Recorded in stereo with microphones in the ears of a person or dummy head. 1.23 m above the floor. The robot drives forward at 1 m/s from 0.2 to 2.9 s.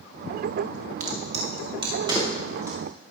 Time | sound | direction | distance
1.0 | a crack | 45° right (ahead or behind) | 1.2 m